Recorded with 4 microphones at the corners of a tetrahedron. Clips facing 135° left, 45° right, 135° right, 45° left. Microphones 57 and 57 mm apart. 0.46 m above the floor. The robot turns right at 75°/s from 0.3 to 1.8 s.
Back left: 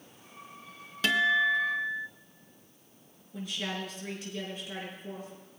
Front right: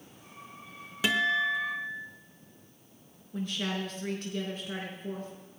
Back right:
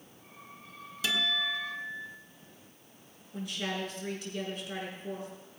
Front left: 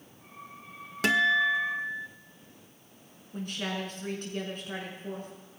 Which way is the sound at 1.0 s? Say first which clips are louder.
Back left 2 dB, front left 8 dB; 30° left.